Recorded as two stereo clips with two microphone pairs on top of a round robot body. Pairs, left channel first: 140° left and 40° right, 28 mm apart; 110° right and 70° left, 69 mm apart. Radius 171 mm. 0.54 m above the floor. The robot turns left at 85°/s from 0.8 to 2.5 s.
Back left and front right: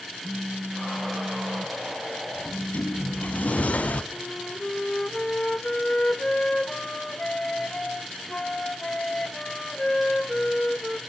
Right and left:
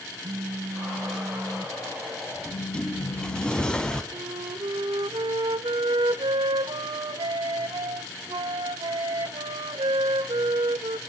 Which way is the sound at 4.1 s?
75° left.